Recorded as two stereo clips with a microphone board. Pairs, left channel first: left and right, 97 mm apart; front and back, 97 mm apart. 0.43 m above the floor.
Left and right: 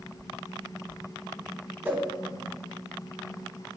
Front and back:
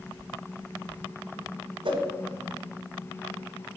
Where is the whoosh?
160° right, 1.3 m.